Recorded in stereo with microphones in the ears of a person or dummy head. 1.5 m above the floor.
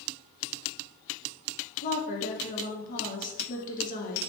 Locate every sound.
1.8 s a woman speaking: 45° left (ahead or behind), 0.7 m